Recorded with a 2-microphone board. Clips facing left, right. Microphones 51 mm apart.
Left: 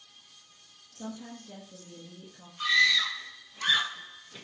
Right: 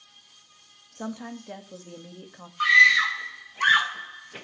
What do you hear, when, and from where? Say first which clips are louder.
0.9 s a woman speaking: right 6 dB; 65° right (ahead or behind), 2 m
2.6 s a scream: right 8 dB; 50° right (ahead or behind), 1.4 m